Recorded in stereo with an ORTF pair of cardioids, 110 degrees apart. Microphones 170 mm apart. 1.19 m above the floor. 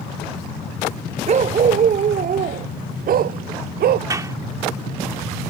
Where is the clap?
20° right.